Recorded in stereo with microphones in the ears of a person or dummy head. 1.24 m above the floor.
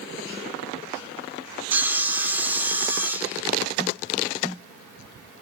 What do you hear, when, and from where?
1.7 s sawing: 15° right (ahead or behind), 0.5 m